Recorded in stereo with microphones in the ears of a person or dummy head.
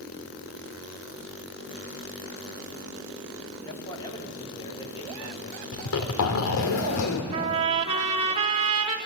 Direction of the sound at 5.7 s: 80° left.